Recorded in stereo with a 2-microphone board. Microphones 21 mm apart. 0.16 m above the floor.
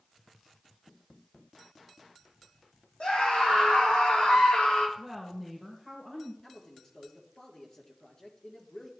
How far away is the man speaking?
About 4 m.